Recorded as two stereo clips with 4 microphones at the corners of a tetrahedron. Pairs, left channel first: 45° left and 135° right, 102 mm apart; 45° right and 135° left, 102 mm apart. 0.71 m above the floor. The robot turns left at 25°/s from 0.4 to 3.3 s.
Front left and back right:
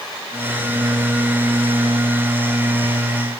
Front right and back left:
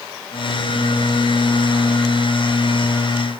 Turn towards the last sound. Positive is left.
No sound to turn to.